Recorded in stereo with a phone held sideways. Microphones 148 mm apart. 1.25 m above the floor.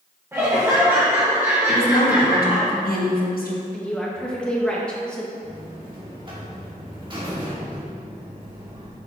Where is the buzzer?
35° right (ahead or behind), 1.9 m.